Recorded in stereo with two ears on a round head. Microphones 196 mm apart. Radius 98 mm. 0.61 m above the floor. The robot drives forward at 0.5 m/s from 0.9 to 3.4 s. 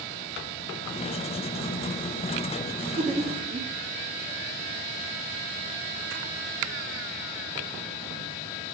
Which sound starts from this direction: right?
Laughter, at 2.7 s.